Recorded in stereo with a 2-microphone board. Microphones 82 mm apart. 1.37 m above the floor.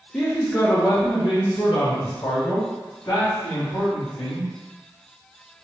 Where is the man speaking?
10° left (ahead or behind), 0.6 m; by 4.5 s 65° left (ahead or behind), 3 m.